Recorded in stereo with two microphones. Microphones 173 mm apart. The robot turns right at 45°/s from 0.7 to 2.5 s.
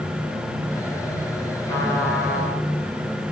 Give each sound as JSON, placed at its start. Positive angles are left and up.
{"t": 1.7, "sound": "a trumpet", "azimuth_deg": 165, "distance_m": 5.5}